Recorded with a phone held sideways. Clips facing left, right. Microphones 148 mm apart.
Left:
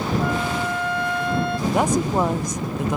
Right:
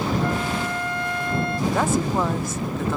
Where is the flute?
65° left (ahead or behind).